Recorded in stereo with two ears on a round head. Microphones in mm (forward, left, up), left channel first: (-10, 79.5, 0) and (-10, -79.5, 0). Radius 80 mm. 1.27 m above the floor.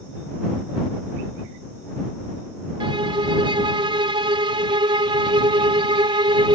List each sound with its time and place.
2.8 s a violin: 25° right (ahead or behind)